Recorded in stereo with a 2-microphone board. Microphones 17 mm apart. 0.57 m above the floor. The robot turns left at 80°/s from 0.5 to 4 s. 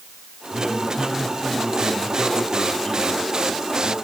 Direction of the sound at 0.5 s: 90° right.